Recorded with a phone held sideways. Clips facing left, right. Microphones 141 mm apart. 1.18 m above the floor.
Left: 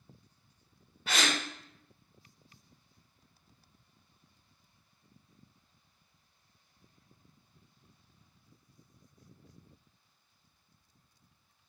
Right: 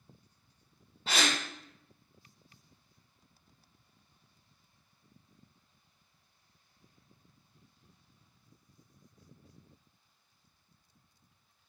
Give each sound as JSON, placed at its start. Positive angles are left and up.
{"t": 1.1, "sound": "a gasp", "side_deg": -30, "distance_m": 0.9}